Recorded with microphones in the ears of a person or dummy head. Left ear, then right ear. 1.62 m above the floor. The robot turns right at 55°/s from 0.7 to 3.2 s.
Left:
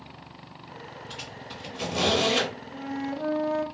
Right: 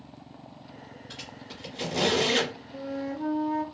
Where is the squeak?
5° right (ahead or behind), 1.6 m; by 2.5 s 60° right (ahead or behind), 1.6 m.